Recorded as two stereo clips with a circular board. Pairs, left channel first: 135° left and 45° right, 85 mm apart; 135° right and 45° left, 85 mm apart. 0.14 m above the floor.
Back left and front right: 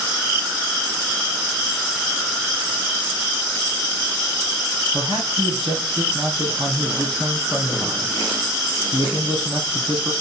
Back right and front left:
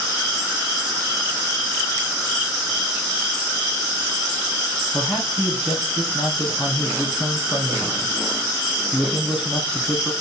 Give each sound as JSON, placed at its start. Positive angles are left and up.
{"t": 4.9, "sound": "a man speaking", "azimuth_deg": -35, "distance_m": 4.5}